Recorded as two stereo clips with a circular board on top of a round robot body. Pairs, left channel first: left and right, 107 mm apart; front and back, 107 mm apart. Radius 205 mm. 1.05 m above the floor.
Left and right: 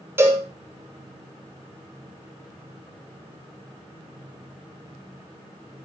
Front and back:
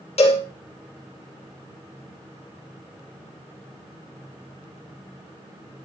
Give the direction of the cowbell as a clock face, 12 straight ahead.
1 o'clock.